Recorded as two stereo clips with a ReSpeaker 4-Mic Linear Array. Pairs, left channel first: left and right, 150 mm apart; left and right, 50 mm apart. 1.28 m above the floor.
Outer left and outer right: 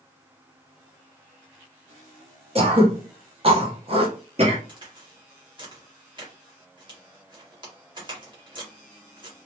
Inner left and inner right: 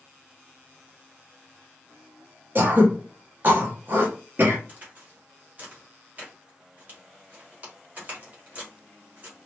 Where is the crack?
30° right (ahead or behind), 1.5 m.